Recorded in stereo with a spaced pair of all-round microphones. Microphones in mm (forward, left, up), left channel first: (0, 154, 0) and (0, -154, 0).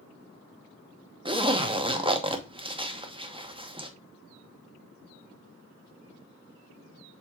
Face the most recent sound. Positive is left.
turn(degrees=-15)  # may be behind; listen again after turning